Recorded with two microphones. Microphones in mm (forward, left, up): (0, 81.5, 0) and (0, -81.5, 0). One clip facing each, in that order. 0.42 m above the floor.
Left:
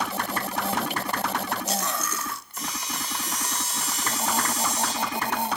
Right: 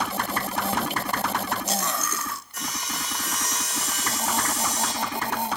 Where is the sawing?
75° right (ahead or behind), 5 m.